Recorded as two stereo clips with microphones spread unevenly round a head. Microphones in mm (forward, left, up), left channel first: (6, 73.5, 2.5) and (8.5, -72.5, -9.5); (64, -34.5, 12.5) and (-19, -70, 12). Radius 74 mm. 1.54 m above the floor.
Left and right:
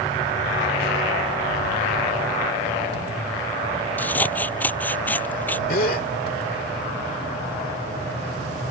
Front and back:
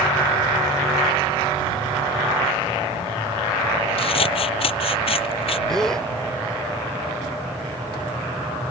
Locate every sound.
4.0 s scissors: 15° left
5.7 s a gasp: 110° left